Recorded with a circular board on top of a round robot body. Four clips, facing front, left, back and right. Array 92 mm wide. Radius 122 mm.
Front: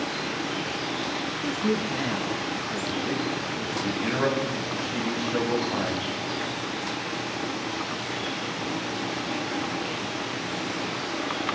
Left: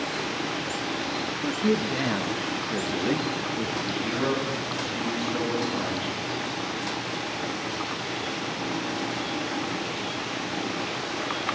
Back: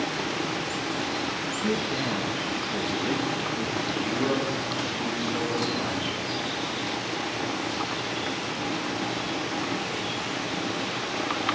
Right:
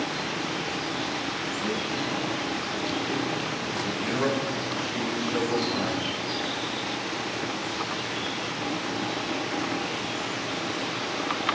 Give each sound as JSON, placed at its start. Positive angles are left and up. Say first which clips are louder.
{"t": 1.4, "sound": "a man speaking", "louder": "left 9 dB, front 4 dB", "azimuth_deg": 55, "distance_m": 1.2}
{"t": 3.8, "sound": "a man speaking", "louder": "right 3 dB, front 4 dB", "azimuth_deg": -20, "distance_m": 5.0}